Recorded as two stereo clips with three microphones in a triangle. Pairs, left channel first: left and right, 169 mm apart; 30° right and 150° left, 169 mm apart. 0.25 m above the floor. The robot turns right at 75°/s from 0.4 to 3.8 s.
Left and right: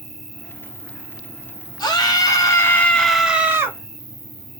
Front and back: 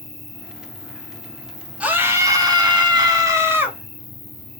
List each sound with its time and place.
0.0 s an insect: straight ahead, 1.1 m; by 4.6 s 105° right, 1.1 m
1.8 s a scream: 80° left, 0.9 m; by 3.8 s 135° right, 0.9 m